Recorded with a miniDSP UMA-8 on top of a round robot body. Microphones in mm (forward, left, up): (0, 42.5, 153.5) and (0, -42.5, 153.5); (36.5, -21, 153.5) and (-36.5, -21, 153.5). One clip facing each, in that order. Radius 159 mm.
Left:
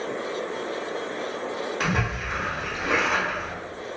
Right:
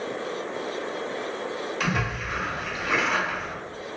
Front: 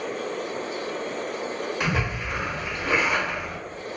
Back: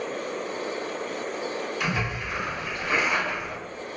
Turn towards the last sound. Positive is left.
turn(degrees=35)